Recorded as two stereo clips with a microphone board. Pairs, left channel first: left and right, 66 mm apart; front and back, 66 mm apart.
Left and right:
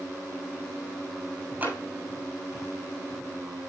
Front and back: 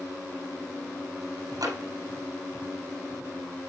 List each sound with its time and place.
1.6 s tapping: 160° right, 6.5 m